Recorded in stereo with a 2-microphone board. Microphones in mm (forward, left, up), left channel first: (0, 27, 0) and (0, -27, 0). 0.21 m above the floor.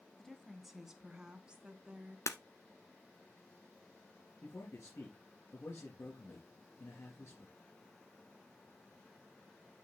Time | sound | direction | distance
0.2 | a woman speaking | 5° left (ahead or behind) | 1.5 m
2.3 | breaking glass | 65° left (ahead or behind) | 1.0 m
4.4 | a man speaking | 60° left (ahead or behind) | 3.5 m